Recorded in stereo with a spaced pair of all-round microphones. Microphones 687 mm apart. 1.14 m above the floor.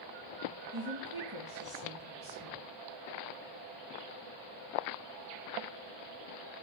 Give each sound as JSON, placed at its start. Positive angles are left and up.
{"t": 0.7, "sound": "a woman speaking", "side_deg": -30, "distance_m": 1.5}